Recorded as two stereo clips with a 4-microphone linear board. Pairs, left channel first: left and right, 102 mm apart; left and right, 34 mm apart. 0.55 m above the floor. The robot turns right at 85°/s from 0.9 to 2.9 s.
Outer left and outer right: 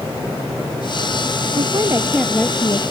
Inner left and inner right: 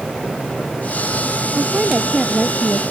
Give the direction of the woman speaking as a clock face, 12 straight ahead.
2 o'clock.